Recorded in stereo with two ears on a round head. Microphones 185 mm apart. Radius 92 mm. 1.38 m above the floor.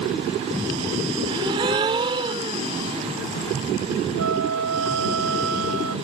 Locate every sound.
1.3 s a gasp: 25° right (ahead or behind)
4.2 s a flute: 75° right (ahead or behind)